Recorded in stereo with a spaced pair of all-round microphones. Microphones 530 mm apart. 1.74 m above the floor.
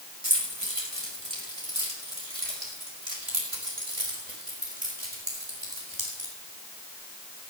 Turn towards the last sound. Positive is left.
turn(degrees=-55)  # may be behind; listen again after turning